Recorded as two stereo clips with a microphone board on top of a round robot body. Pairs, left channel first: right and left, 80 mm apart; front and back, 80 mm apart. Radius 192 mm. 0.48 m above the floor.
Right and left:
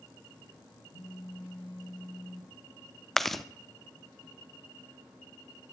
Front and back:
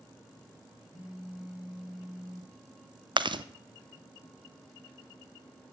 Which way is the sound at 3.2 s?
Straight behind.